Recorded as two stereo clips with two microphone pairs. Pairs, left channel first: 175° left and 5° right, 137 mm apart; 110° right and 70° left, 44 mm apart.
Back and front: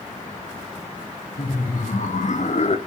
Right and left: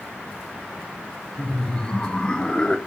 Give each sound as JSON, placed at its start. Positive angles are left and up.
{"t": 1.4, "sound": "laughter", "azimuth_deg": -175, "distance_m": 2.5}